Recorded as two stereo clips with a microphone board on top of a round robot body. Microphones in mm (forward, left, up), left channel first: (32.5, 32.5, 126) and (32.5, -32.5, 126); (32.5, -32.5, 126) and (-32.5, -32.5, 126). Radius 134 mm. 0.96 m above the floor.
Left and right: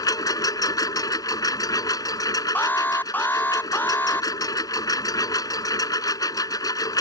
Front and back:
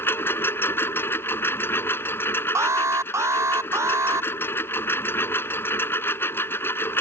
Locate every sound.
0.0 s a lawn mower: 60° left
2.5 s an alarm: 145° left